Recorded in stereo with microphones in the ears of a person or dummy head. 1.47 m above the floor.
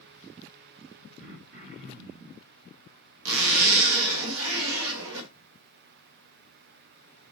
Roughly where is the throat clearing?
Right.